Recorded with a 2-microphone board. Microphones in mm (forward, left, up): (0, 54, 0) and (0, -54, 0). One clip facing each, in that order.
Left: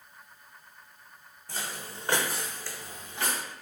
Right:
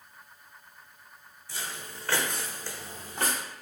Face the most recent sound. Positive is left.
turn(degrees=-45)  # may be behind; listen again after turning